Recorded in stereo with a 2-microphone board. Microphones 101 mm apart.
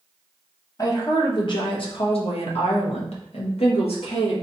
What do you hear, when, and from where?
0.8 s a woman speaking: 35° left (ahead or behind), 1.3 m; by 4.3 s 65° left (ahead or behind), 1.7 m